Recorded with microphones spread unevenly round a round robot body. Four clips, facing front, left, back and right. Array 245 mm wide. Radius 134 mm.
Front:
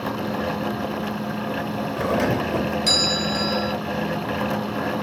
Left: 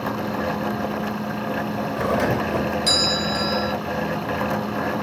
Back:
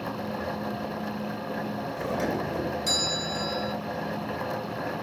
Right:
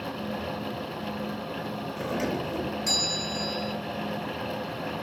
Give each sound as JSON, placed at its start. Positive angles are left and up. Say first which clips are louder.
{"t": 2.0, "sound": "a doorbell", "louder": "left 8 dB, front 7 dB", "azimuth_deg": 45, "distance_m": 1.7}